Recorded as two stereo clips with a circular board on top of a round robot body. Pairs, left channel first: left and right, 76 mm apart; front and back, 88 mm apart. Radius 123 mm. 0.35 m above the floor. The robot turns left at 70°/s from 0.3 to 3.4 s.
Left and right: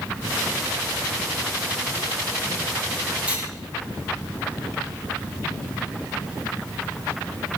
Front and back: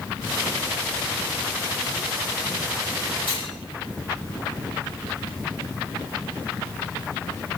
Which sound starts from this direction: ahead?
Cutlery clinking, at 3.3 s.